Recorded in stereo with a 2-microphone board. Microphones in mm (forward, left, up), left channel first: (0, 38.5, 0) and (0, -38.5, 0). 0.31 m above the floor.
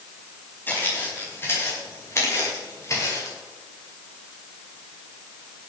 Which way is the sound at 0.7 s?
25° left (ahead or behind).